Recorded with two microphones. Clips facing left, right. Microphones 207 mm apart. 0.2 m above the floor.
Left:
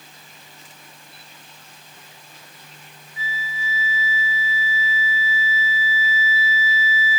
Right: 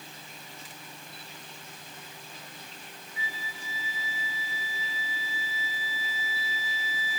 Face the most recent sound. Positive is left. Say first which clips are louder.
# left 8 dB
turn(degrees=-60)  # may be behind; listen again after turning